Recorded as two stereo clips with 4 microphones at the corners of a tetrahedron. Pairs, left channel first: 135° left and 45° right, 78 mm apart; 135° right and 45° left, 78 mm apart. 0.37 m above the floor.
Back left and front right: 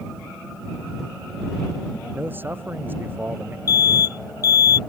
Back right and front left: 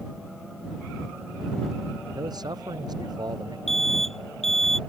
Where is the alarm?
140° left.